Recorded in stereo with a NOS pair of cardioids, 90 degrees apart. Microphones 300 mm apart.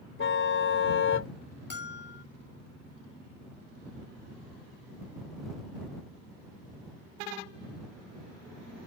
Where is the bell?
35° left.